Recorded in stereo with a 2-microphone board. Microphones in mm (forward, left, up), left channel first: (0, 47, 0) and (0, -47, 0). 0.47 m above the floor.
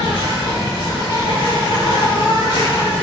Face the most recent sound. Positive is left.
turn(degrees=60)  # may be behind; listen again after turning